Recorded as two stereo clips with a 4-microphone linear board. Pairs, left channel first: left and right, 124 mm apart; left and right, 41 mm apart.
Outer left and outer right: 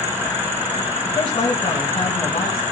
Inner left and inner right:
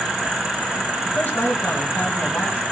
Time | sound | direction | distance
1.1 | a man speaking | 40° left (ahead or behind) | 2 m